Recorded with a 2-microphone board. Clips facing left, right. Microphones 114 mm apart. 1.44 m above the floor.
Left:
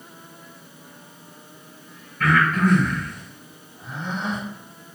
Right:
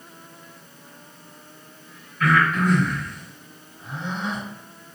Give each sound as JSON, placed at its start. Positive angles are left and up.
{"t": 2.2, "sound": "breathing", "side_deg": 45, "distance_m": 1.6}